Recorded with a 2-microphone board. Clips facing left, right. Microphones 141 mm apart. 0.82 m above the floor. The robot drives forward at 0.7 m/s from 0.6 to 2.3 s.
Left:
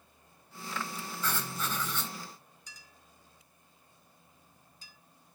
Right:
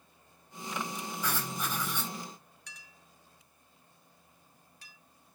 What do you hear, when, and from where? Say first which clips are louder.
1.2 s writing: left 1 dB; 15° right (ahead or behind), 4 m
2.7 s a clink: right 1 dB; 70° right (ahead or behind), 0.9 m